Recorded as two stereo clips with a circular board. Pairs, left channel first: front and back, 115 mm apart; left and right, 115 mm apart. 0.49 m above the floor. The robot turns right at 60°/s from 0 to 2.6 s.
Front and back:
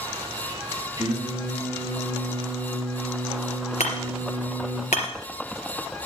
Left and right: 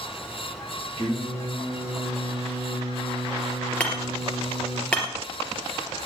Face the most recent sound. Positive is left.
turn(degrees=10)